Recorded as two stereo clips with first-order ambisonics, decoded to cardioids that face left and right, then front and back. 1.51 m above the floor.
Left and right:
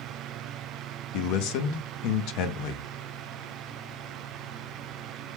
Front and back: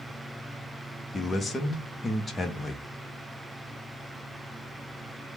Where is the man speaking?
80° left, 0.6 m.